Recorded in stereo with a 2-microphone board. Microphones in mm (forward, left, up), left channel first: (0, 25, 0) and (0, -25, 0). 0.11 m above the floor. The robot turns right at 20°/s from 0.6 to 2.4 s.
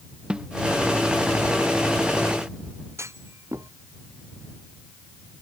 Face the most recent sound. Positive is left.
turn(degrees=-75)  # may be behind; listen again after turning